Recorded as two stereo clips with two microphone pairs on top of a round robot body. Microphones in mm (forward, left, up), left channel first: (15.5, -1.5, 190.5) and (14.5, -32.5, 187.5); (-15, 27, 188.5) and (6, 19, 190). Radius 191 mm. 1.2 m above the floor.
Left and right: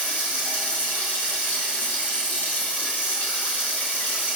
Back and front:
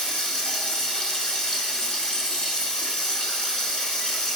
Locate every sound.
0.0 s running water: 100° left, 4 m